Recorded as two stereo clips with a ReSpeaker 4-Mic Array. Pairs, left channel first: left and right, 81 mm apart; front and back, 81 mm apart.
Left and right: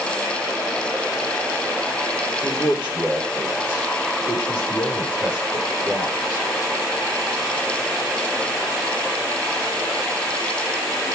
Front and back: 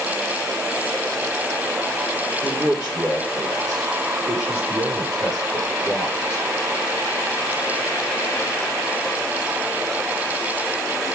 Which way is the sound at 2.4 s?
150° left.